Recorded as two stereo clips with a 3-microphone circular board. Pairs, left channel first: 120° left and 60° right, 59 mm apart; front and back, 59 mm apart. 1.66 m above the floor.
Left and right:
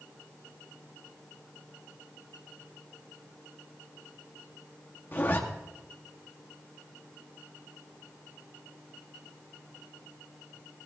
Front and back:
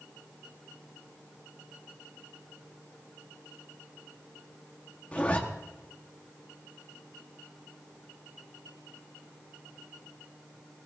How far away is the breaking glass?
I don't hear breaking glass.